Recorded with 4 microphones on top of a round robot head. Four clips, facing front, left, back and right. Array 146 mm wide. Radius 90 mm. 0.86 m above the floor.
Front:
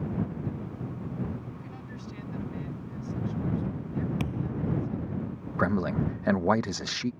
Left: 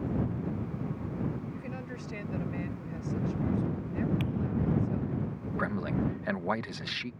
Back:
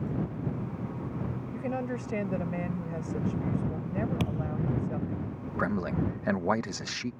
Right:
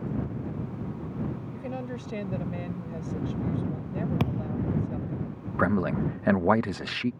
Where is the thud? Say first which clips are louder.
Right 1 dB, even; 100° right.